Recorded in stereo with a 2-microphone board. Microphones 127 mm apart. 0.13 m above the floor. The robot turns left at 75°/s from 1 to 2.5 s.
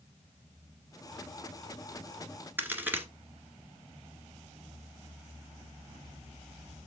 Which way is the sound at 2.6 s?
15° right (ahead or behind).